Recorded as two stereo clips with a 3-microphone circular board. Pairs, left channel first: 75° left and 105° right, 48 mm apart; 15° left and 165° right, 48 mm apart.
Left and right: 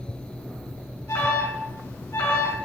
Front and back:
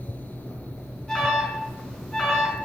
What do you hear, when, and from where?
1.1 s an alarm: 90° left, 6 m